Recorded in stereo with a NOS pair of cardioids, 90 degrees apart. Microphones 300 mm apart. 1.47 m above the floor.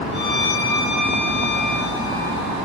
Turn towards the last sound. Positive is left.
turn(degrees=35)